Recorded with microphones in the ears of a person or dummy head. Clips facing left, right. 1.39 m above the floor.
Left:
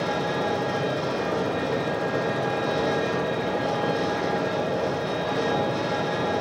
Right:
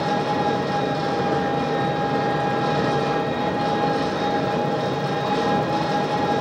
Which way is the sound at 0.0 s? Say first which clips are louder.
Right 4 dB; 55° right (ahead or behind).